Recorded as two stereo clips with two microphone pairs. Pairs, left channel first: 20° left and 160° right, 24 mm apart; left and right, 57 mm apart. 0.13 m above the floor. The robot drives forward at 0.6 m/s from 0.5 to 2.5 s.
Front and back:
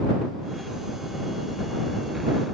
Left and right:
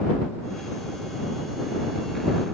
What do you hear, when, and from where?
Only background noise.